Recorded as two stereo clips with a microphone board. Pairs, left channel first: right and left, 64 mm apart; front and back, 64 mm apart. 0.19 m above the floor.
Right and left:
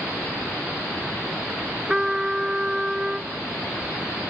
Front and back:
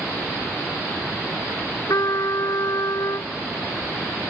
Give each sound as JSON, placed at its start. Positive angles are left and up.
{"t": 1.9, "sound": "a trumpet", "azimuth_deg": 15}